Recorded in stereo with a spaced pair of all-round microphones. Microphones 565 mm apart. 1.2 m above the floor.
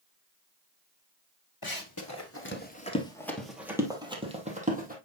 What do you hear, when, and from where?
1.6 s running footsteps: 40° left (ahead or behind), 1.5 m; by 5.0 s 15° right (ahead or behind), 3 m